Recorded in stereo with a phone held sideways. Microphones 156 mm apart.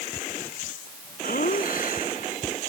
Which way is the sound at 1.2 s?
65° left (ahead or behind).